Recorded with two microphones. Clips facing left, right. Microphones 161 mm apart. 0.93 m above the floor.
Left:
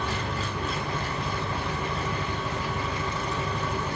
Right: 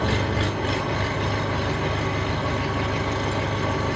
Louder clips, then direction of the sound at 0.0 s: Right 7 dB; 75° right (ahead or behind).